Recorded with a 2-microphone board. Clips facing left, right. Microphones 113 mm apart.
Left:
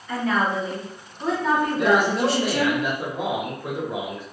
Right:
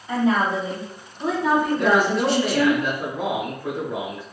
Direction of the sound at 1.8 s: 15° left (ahead or behind).